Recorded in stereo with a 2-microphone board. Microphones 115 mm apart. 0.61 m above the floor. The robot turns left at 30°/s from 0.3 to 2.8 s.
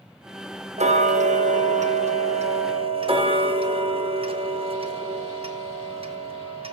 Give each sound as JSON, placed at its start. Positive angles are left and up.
{"t": 0.8, "sound": "ticking", "azimuth_deg": -70, "distance_m": 0.7}